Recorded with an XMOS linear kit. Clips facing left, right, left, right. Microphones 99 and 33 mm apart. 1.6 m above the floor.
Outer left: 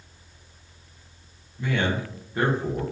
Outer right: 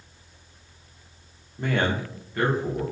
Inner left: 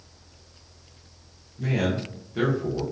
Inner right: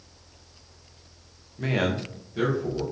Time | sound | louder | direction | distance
1.6 | a man speaking | outer right 1 dB, even | 60° right (ahead or behind) | 0.7 m